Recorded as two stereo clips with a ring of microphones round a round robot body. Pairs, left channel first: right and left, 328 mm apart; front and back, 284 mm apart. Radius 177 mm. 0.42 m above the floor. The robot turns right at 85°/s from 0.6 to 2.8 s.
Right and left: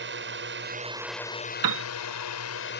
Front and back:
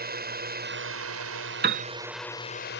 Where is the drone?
135° left; by 2.8 s 40° right.